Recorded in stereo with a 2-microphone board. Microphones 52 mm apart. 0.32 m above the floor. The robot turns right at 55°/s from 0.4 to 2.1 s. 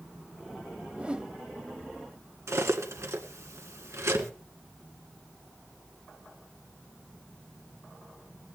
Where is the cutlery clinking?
70° right (ahead or behind), 1.9 m.